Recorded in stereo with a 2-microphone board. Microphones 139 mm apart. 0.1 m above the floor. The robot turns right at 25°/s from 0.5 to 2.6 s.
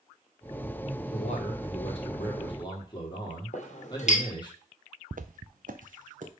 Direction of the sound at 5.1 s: 70° right (ahead or behind).